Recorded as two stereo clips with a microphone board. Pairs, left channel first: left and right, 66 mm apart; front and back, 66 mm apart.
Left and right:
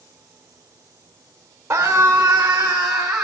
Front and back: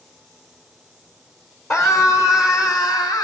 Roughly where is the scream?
Ahead right.